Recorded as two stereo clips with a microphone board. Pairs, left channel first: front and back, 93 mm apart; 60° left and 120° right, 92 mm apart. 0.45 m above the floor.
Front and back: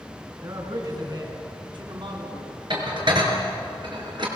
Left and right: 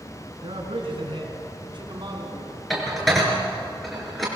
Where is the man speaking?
135° right, 4 m; by 2.6 s 165° right, 3.5 m.